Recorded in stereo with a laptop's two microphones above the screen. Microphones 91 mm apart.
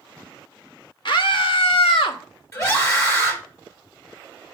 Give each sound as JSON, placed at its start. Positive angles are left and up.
{"t": 1.1, "sound": "a scream", "side_deg": 60, "distance_m": 1.4}
{"t": 2.5, "sound": "a scream", "side_deg": 30, "distance_m": 4.0}